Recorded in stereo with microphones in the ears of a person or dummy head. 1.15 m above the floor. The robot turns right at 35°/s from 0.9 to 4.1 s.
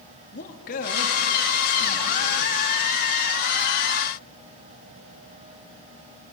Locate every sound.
0.3 s a man speaking: 50° left, 2 m; by 2.5 s 105° left, 2 m